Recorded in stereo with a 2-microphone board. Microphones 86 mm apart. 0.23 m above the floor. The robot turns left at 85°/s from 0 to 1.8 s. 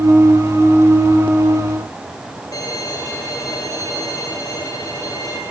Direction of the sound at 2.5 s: 45° left (ahead or behind).